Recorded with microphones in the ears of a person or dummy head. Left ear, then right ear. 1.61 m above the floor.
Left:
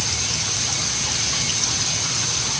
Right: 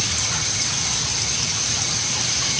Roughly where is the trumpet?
No trumpet in this recording.